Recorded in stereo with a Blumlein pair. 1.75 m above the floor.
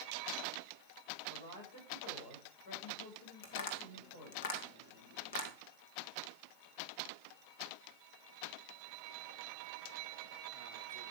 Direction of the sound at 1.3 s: 60° left.